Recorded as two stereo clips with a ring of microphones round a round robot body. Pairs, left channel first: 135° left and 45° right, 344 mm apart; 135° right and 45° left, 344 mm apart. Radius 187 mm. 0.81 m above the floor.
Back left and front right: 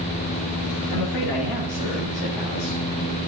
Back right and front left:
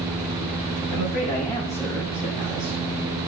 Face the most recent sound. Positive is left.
turn(degrees=120)